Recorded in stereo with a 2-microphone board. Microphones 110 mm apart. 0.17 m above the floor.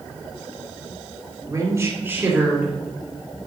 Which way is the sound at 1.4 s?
35° right (ahead or behind).